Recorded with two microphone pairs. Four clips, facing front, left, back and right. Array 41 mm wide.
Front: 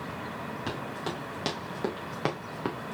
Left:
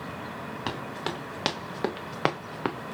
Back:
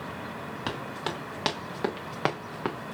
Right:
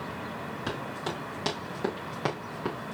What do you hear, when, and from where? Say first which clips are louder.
0.7 s running footsteps: left 2 dB, back 3 dB; 130° left, 2.5 m; by 2.9 s 105° left, 0.8 m